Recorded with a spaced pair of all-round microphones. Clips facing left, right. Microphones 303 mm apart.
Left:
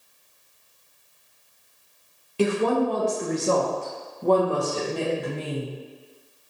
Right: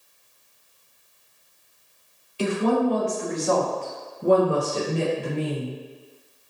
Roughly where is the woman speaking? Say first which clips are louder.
Even; left.